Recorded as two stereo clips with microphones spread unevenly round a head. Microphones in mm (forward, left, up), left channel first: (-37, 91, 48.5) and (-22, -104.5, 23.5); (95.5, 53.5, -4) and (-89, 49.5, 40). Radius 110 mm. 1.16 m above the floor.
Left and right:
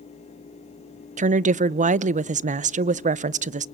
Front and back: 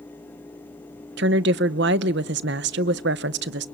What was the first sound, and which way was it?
A woman speaking, 135° right.